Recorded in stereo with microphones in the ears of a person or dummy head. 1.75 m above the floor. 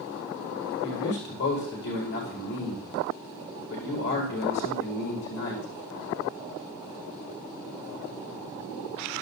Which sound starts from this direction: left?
A man speaking, at 0.8 s.